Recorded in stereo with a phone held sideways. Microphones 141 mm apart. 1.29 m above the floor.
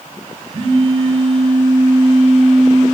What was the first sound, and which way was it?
A phone buzzing, 40° right (ahead or behind).